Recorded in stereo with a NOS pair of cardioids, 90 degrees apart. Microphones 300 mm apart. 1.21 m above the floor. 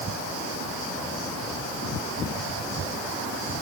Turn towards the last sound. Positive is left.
No sound to turn to.